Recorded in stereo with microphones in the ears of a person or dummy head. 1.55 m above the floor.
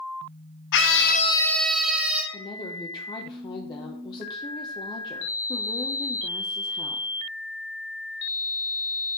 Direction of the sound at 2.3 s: 25° left (ahead or behind).